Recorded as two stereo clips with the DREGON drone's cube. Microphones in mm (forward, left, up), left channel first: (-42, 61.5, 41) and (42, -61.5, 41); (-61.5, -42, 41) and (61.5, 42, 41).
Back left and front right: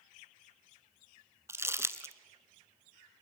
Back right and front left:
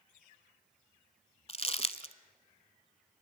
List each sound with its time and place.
1.5 s crumpling: 120° right, 0.8 m